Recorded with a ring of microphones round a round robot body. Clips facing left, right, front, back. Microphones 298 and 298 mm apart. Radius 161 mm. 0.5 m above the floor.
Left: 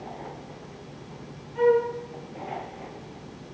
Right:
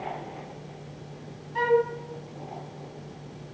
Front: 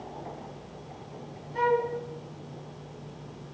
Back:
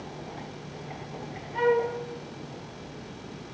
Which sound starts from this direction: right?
A flute, at 1.6 s.